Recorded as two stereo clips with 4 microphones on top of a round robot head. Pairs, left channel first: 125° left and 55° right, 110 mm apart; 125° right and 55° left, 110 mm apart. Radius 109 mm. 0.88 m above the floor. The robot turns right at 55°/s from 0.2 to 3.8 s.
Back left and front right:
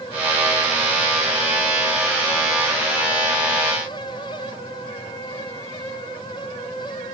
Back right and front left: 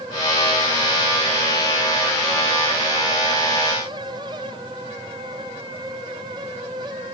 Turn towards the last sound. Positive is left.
No sound to turn to.